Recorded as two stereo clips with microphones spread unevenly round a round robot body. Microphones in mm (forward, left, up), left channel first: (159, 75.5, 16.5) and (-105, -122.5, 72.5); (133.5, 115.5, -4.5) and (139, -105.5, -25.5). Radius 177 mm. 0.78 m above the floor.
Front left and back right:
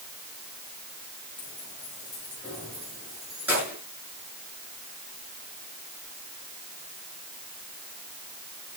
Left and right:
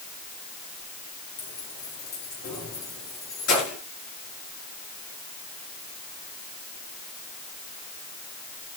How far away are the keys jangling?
About 5.5 m.